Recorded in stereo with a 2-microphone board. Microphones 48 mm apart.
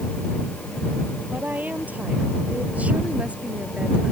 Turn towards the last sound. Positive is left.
turn(degrees=-20)  # may be behind; listen again after turning